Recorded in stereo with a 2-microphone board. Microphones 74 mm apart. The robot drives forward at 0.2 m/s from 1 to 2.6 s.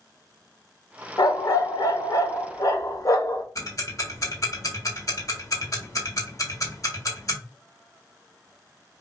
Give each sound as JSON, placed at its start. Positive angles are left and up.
{"t": 1.2, "sound": "a dog barking", "side_deg": 65, "distance_m": 0.7}
{"t": 3.5, "sound": "ticking", "side_deg": 50, "distance_m": 1.2}